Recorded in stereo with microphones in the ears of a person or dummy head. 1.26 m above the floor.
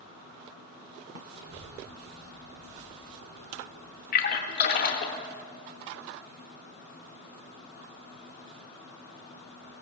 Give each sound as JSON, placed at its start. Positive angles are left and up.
{"t": 1.3, "sound": "a child speaking", "side_deg": -65, "distance_m": 3.0}
{"t": 4.1, "sound": "a splash", "side_deg": 45, "distance_m": 1.0}